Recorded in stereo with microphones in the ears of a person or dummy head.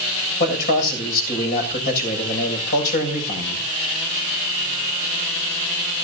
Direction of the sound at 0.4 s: 50° left (ahead or behind).